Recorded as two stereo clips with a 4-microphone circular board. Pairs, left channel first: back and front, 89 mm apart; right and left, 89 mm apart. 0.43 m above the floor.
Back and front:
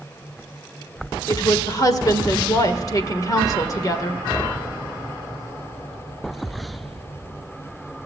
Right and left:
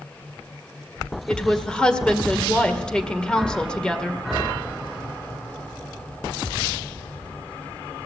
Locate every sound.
1.3 s a woman speaking: 165° right, 1.5 m